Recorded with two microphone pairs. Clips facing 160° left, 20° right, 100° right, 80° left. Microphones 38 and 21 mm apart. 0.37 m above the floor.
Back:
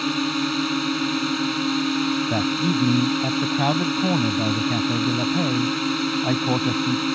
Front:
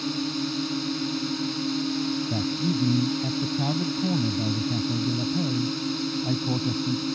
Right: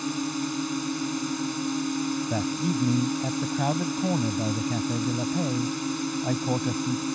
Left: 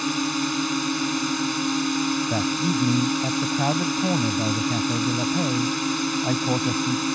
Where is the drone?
130° left.